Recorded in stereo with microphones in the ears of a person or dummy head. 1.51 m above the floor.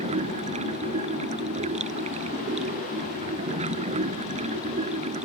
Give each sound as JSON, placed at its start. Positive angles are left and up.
{"t": 0.0, "sound": "running water", "side_deg": -40}